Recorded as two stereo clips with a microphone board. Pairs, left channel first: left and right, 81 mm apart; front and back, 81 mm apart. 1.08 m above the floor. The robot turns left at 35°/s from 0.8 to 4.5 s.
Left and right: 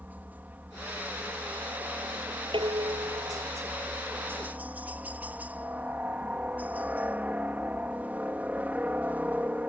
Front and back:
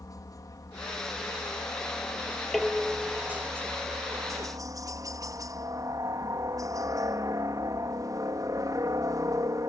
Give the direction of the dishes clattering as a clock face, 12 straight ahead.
3 o'clock.